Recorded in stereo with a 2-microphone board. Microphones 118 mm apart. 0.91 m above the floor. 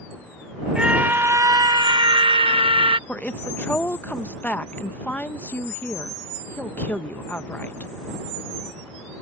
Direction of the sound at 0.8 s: 10° right (ahead or behind).